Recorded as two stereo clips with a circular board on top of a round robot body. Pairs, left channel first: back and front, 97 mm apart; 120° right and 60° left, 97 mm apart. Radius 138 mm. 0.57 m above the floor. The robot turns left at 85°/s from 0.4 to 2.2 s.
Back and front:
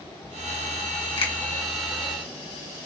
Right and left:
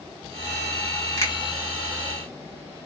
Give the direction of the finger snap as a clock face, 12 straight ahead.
6 o'clock.